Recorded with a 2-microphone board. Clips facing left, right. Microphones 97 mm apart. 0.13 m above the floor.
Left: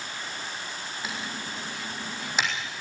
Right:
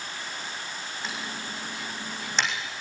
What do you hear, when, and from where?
1.0 s typing on a keyboard: 5° left (ahead or behind), 5.5 m